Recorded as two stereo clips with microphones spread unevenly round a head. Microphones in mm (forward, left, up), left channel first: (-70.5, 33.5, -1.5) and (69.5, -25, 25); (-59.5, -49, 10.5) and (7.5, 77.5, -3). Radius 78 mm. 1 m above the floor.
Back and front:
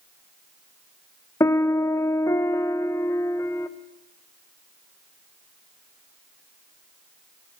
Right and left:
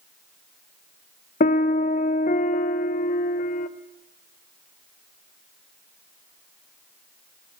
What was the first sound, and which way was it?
A piano, 145° right.